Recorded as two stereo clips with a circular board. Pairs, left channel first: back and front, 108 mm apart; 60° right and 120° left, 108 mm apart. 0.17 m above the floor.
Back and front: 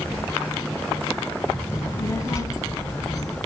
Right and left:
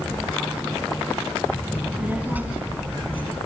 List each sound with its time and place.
1.7 s a child speaking: straight behind, 1.3 m